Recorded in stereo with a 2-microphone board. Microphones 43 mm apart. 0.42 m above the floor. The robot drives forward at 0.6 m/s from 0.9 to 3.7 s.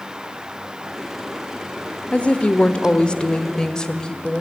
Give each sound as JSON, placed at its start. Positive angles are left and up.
{"t": 2.1, "sound": "a woman speaking", "side_deg": 30, "distance_m": 0.8}